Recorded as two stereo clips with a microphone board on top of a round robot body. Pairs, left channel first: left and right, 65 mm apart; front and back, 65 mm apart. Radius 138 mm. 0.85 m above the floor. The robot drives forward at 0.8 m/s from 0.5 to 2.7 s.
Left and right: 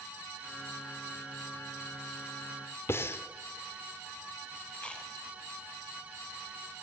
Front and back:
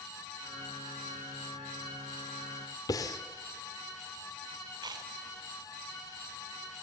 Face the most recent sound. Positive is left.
turn(degrees=165)